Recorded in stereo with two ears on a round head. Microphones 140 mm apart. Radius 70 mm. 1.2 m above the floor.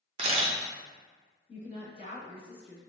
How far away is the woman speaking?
About 1.9 m.